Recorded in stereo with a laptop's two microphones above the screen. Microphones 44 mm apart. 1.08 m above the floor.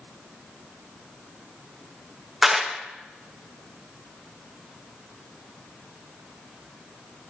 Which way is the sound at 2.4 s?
10° right (ahead or behind).